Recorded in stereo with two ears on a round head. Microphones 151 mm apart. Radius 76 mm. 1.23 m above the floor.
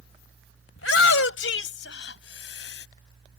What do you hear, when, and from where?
0.8 s a shout: 80° left; by 2.9 s 70° left (ahead or behind)